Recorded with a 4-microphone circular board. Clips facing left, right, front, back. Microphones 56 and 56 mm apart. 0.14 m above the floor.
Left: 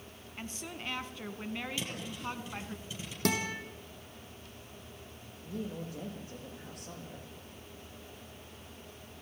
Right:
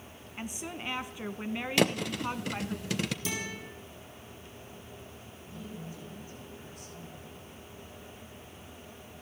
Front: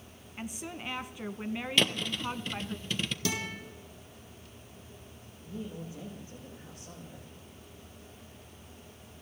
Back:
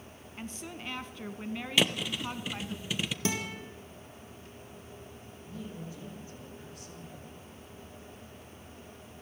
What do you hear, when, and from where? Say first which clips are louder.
0.4 s a woman speaking: right 4 dB, front 2 dB; 55° right, 1.1 m
1.8 s a thud: right 12 dB, back 1 dB; 100° right, 1.3 m
3.2 s a guitar: left 5 dB, back 2 dB; 115° left, 4.5 m
5.4 s a woman speaking: left 5 dB, front 2 dB; 65° left, 8.5 m